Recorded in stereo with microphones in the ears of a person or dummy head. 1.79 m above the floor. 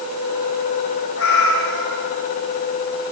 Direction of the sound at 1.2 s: 75° left (ahead or behind).